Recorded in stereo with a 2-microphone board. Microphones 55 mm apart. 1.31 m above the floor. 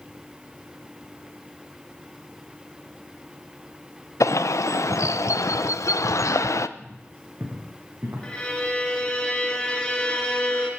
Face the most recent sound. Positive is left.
turn(degrees=20)  # may be behind; listen again after turning